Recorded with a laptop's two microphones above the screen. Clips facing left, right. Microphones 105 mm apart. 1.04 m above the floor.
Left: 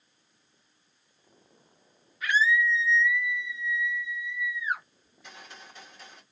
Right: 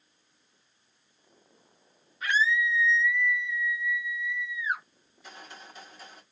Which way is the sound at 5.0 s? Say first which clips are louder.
Right 3 dB; 5° right (ahead or behind).